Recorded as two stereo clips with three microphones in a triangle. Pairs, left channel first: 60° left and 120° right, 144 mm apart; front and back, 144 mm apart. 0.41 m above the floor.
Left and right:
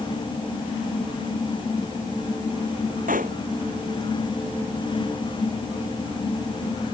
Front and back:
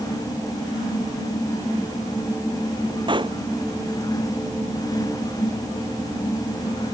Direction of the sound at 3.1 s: 125° right.